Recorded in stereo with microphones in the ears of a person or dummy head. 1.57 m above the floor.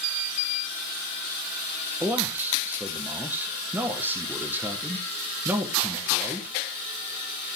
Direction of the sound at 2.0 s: 5° right (ahead or behind).